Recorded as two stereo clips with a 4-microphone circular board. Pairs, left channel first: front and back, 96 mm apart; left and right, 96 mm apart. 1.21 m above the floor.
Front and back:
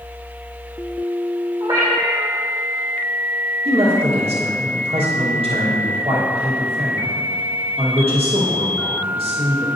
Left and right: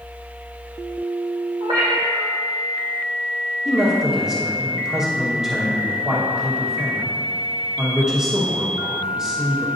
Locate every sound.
1.6 s a cat meowing: 125° right, 2 m
3.6 s a man speaking: 170° right, 1.2 m